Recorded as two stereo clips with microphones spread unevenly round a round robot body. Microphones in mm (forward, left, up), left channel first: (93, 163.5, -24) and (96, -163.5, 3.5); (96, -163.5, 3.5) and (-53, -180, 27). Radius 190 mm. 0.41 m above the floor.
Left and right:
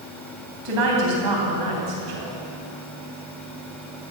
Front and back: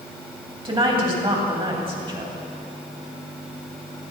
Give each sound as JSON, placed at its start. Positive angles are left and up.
{"t": 0.7, "sound": "a woman speaking", "azimuth_deg": -115, "distance_m": 3.5}